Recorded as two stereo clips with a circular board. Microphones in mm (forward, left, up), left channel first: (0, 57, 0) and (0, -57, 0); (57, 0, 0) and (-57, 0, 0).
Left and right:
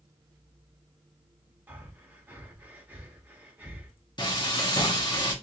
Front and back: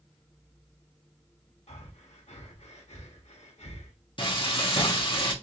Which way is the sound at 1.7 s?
15° right.